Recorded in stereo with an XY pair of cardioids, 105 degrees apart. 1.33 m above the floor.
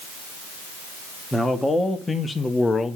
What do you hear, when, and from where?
1.3 s a man speaking: 15° left, 2.0 m; by 3.0 s 35° left, 1.2 m